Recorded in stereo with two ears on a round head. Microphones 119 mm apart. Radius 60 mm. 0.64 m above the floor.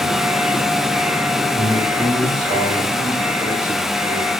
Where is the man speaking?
70° right (ahead or behind), 3.5 m; by 4.3 s 45° right (ahead or behind), 5.5 m.